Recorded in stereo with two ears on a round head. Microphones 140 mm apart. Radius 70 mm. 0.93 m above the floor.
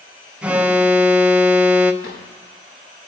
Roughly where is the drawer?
Left.